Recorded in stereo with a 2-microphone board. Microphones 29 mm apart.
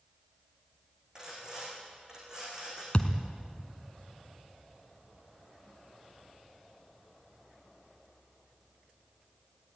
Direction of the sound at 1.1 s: 30° right (ahead or behind).